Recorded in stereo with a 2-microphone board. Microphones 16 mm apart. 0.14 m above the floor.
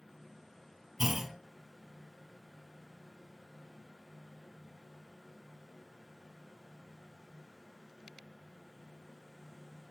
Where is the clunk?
20° right (ahead or behind), 1.2 m.